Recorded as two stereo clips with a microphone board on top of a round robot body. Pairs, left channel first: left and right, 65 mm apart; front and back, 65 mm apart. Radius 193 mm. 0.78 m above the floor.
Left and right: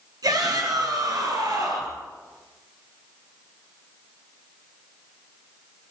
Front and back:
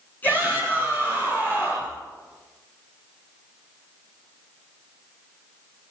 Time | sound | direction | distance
0.2 | a shout | 65° right | 9 m